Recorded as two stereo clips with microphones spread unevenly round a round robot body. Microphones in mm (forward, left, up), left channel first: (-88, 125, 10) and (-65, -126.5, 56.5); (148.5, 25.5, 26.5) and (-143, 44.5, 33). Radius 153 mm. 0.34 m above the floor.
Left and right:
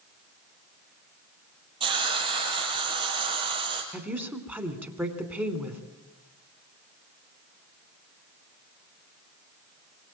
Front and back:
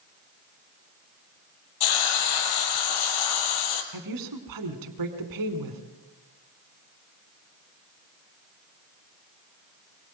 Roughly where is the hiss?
Ahead.